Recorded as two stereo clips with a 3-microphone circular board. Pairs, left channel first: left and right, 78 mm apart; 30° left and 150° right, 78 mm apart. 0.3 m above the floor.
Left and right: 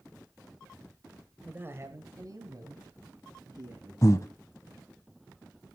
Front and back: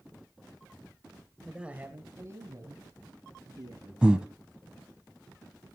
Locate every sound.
1.4 s a man speaking: 70° right, 1.3 m; by 3.9 s 120° right, 4.5 m
4.0 s breathing: 135° left, 0.8 m